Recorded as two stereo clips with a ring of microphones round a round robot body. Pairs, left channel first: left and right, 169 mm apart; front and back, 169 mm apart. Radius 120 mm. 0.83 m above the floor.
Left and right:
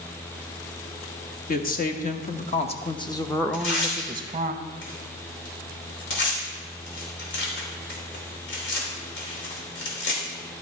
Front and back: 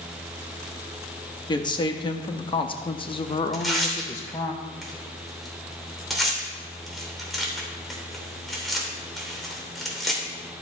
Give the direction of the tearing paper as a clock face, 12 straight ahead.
9 o'clock.